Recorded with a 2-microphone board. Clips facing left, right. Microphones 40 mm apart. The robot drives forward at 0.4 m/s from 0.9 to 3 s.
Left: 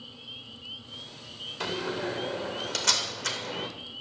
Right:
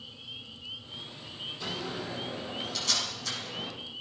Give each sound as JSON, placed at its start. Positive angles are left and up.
{"t": 1.6, "sound": "a door slam", "side_deg": 75, "distance_m": 2.5}